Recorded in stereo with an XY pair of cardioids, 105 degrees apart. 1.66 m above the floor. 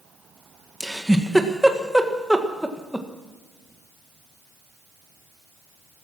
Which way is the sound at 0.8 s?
Straight ahead.